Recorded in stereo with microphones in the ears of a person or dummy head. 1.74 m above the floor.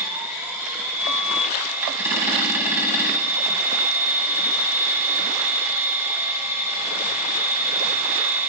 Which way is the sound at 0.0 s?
10° right (ahead or behind).